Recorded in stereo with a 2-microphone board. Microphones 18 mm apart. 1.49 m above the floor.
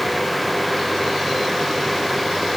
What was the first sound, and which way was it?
Only background noise.